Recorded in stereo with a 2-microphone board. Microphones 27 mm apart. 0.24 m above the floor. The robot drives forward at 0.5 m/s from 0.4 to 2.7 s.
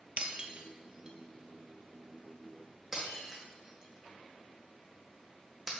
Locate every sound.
0.2 s breaking glass: 45° right (ahead or behind), 0.7 m; by 5.7 s 15° right (ahead or behind), 1.7 m